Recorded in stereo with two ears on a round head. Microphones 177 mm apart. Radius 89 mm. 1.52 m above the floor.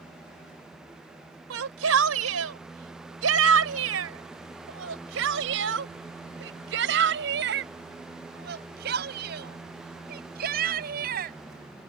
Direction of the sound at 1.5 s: 85° right.